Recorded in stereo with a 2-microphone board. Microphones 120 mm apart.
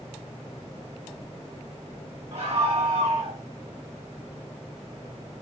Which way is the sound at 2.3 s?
65° right (ahead or behind).